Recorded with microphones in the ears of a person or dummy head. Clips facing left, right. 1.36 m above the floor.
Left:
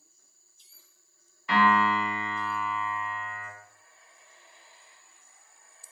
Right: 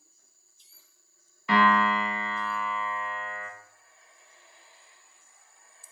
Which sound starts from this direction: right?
A piano, at 1.5 s.